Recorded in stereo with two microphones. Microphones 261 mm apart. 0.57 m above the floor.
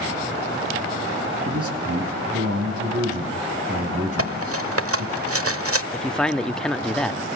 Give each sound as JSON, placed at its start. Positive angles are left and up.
{"t": 1.4, "sound": "a man speaking", "side_deg": -60, "distance_m": 4.5}
{"t": 4.2, "sound": "cutlery clinking", "side_deg": -60, "distance_m": 1.1}
{"t": 5.9, "sound": "a man speaking", "side_deg": 5, "distance_m": 0.8}